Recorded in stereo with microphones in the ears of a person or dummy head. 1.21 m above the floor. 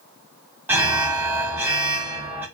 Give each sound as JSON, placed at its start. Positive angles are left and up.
{"t": 0.7, "sound": "an alarm", "side_deg": -10, "distance_m": 0.5}